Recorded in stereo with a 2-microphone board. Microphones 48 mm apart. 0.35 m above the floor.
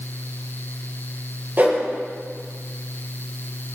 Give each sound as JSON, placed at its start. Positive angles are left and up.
{"t": 1.6, "sound": "a whoosh", "side_deg": -40, "distance_m": 5.5}